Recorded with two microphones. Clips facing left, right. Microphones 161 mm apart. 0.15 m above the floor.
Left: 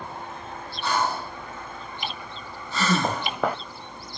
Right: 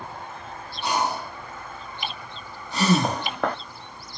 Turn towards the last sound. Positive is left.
turn(degrees=5)  # may be behind; listen again after turning